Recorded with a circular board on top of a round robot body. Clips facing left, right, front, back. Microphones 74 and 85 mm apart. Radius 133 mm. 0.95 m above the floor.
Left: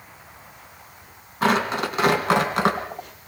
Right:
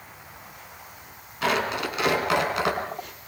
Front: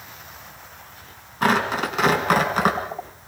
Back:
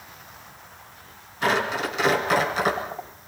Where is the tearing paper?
40° left, 3.5 m.